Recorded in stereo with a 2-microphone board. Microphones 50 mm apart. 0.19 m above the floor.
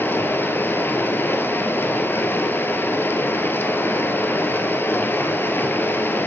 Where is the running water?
45° left (ahead or behind), 1.3 m.